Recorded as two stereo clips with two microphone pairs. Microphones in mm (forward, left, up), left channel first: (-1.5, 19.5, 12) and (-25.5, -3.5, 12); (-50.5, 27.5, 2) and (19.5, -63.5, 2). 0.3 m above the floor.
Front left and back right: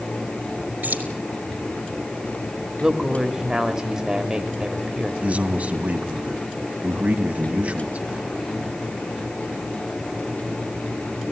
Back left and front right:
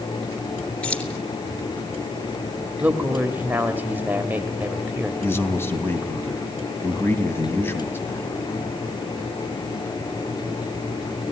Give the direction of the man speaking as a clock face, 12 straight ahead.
6 o'clock.